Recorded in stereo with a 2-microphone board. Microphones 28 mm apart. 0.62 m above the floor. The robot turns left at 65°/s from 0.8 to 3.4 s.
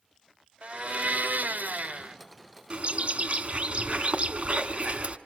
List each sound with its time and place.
0.6 s a blender: 50° right, 1.5 m; by 2.2 s 140° right, 1.5 m
2.7 s a bird: 55° right, 1.5 m; by 5.2 s 100° right, 1.5 m